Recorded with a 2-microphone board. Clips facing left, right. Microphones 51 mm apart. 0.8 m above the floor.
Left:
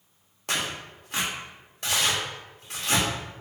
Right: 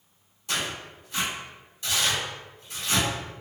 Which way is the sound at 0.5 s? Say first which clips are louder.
Left 1 dB; 70° left (ahead or behind).